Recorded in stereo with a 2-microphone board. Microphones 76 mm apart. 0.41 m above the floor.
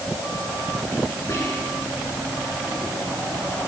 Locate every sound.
1.3 s whispering: 45° left (ahead or behind), 3.5 m